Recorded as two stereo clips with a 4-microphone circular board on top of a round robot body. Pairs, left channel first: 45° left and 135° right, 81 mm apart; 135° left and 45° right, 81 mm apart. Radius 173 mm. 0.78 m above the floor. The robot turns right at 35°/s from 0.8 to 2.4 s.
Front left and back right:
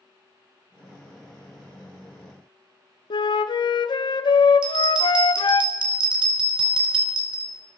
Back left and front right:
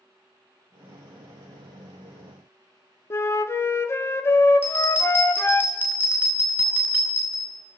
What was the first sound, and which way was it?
A flute, 75° left.